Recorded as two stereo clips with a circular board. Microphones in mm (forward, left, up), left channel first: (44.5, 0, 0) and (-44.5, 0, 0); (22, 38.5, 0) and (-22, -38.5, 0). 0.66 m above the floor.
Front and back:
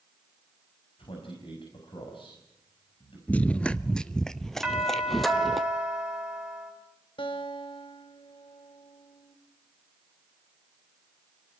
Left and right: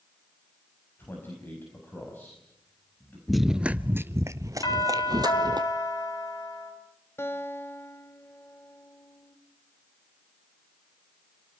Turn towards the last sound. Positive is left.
turn(degrees=0)